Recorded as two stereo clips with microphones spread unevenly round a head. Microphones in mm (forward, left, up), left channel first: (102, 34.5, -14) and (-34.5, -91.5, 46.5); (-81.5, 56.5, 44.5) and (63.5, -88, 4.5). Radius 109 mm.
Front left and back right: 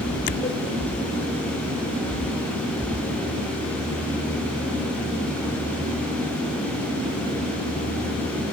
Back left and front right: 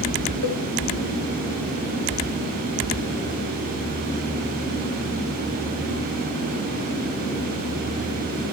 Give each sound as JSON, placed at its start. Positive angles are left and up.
{"t": 0.4, "sound": "a cowbell", "azimuth_deg": 110, "distance_m": 1.0}